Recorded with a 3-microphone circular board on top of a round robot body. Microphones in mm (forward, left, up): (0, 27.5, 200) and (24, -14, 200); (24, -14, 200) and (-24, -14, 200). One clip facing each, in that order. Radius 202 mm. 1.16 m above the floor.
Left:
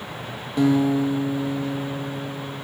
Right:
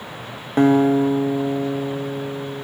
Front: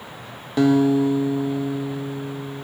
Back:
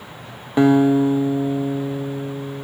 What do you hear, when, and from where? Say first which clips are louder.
0.6 s a guitar: right 4 dB, back 3 dB; 115° right, 0.5 m